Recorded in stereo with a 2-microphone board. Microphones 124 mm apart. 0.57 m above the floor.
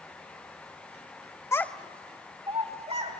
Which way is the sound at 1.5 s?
25° left (ahead or behind).